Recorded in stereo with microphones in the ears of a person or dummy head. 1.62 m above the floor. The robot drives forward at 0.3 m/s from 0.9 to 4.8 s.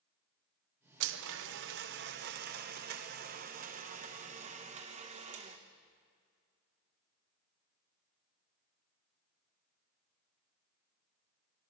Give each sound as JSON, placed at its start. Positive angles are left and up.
{"t": 1.0, "sound": "a blender", "side_deg": -75, "distance_m": 1.2}